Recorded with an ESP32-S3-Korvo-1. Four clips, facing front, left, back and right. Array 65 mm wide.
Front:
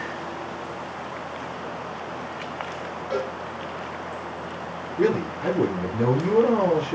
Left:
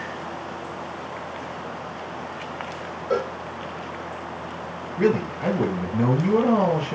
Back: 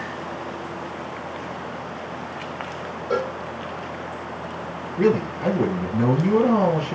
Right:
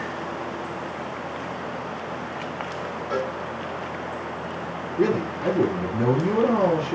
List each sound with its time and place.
3.1 s a cowbell: 140° left, 2.5 m
5.0 s a man speaking: 130° left, 2.5 m